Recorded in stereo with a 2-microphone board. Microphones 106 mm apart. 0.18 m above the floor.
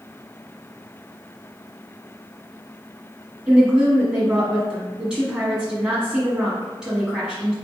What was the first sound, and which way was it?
A woman speaking, 10° right (ahead or behind).